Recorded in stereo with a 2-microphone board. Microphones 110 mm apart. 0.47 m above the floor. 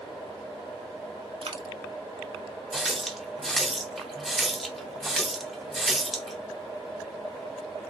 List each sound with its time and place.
1.4 s a dropped coin: 60° right (ahead or behind), 0.6 m
2.7 s a running tap: centre (ahead or behind), 0.6 m